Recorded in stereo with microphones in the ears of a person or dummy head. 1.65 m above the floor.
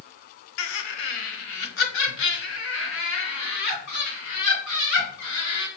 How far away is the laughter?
About 0.6 m.